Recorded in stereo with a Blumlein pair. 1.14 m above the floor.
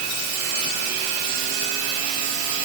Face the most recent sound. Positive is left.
No sound to turn to.